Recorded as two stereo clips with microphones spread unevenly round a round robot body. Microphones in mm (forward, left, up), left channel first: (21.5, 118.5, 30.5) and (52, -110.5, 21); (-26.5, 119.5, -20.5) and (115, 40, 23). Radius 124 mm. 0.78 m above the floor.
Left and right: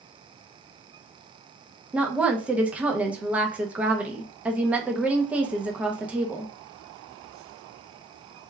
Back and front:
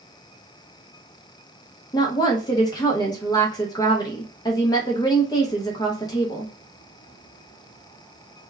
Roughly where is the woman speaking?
Behind.